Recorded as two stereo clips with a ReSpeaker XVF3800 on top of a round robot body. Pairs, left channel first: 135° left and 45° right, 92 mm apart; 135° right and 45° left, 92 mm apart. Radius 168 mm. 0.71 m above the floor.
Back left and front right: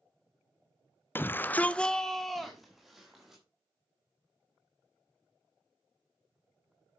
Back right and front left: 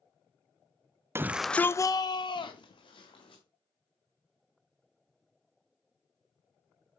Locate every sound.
1.1 s a shout: 85° left, 0.6 m; by 3.4 s 130° right, 1.7 m